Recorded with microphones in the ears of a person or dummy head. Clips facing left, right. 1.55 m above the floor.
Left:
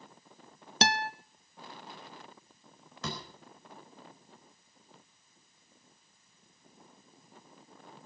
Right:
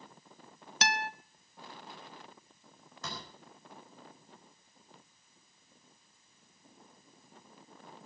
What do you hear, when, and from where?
0.8 s a guitar: 30° left (ahead or behind), 0.5 m
3.0 s a door slam: 60° left (ahead or behind), 4 m